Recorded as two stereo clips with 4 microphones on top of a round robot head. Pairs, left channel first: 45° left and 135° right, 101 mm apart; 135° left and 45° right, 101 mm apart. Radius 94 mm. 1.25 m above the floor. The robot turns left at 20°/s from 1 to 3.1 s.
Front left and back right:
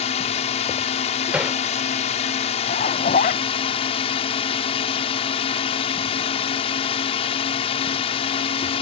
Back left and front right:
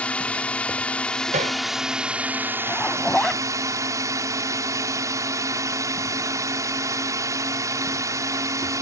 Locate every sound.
0.0 s a drone: 60° left; by 8.8 s 15° left
1.3 s hammering: 55° right; by 1.6 s 60° right
2.7 s a zipper: 60° left; by 3.4 s 50° left